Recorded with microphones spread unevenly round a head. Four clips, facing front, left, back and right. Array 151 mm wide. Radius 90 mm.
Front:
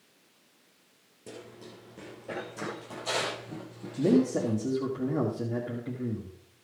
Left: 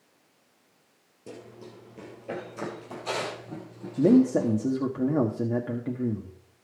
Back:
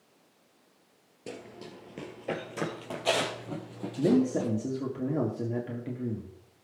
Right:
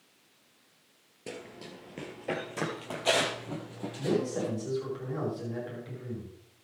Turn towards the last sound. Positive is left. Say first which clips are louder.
# left 10 dB, front 1 dB
turn(degrees=100)